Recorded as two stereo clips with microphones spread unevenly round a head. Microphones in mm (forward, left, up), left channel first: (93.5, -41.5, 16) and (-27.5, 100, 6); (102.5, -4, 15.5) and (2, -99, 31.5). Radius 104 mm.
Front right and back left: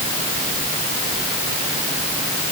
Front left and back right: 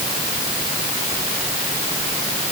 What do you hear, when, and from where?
Only background noise.